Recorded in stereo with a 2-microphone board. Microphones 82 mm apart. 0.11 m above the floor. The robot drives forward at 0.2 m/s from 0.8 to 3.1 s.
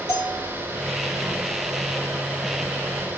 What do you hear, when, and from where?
0.1 s a bell: 35° left (ahead or behind), 3 m